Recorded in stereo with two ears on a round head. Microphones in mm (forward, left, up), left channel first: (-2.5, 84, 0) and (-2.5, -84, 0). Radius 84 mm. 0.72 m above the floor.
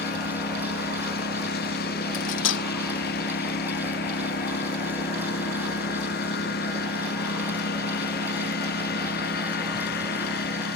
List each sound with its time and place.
0.0 s a lawn mower: 55° left (ahead or behind)
2.1 s cutlery clinking: 70° left (ahead or behind)